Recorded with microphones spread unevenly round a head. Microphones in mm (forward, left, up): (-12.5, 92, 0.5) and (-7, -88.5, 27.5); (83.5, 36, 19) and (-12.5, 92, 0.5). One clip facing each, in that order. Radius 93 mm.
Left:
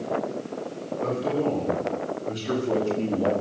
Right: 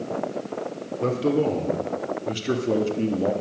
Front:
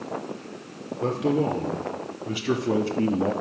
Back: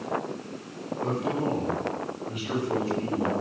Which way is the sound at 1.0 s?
55° right.